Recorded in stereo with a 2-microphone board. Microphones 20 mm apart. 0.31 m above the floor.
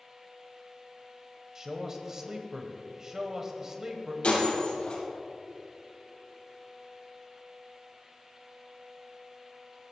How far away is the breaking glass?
About 4.5 m.